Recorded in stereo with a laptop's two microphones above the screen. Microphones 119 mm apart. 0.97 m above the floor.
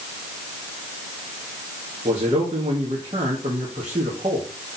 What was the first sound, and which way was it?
A man speaking, 65° right (ahead or behind).